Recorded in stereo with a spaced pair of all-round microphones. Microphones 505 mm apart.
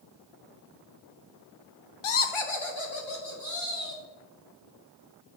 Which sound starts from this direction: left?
Laughter, at 2.0 s.